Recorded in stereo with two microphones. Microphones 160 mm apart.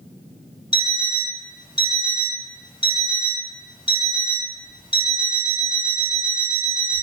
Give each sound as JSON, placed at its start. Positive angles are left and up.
{"t": 0.7, "sound": "an alarm clock", "side_deg": 30, "distance_m": 0.9}